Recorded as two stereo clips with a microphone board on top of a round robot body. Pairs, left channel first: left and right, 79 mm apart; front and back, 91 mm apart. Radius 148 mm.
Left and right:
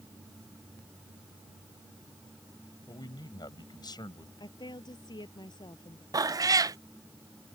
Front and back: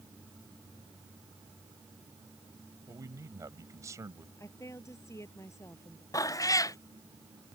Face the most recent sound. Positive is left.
turn(degrees=-50)